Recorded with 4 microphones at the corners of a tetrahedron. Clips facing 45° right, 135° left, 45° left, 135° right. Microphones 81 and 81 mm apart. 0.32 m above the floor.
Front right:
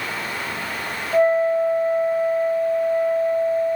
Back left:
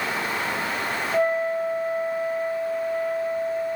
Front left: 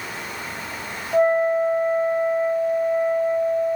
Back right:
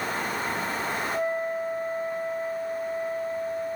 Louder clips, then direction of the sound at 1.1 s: Front right 7 dB, front left 14 dB; 10° left.